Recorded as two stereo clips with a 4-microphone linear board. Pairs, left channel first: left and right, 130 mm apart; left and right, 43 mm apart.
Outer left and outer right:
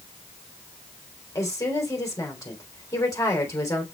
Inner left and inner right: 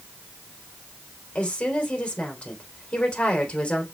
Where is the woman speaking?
25° left (ahead or behind), 3 m.